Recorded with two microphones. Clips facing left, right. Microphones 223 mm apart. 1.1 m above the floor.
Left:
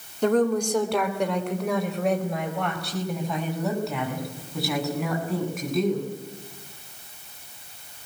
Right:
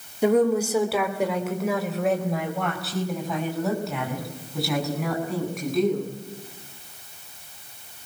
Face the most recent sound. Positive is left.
turn(degrees=0)  # may be behind; listen again after turning